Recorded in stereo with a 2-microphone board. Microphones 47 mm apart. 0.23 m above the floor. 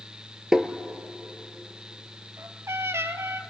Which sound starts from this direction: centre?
Tapping, at 0.5 s.